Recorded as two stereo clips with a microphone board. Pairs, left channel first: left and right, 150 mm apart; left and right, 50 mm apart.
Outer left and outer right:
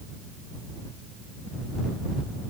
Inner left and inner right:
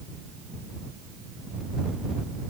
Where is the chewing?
I don't hear chewing.